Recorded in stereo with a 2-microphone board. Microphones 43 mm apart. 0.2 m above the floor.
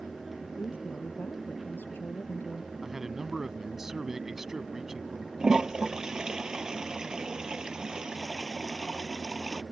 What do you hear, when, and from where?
0.6 s a woman speaking: 55° left (ahead or behind); by 2.7 s 45° left (ahead or behind)
2.8 s a man speaking: 10° right (ahead or behind)
5.4 s a toilet flushing: 15° right (ahead or behind)